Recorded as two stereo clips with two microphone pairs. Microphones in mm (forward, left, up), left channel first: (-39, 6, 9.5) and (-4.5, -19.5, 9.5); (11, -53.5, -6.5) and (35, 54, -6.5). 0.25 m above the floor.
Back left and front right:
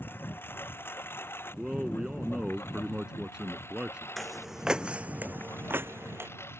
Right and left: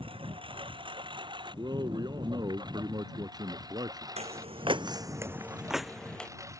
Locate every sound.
0.0 s a lawn mower: 115° left; by 6.6 s 140° left
1.6 s a man speaking: 30° left
4.2 s footsteps: 60° left; by 6.3 s 25° right